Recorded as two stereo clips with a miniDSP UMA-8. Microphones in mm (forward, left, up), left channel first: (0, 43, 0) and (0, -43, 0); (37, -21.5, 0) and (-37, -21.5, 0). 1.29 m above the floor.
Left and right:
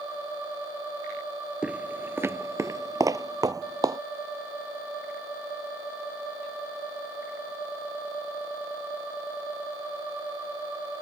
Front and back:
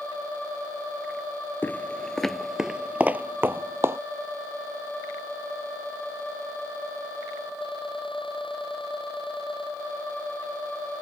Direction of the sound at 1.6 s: 30° right.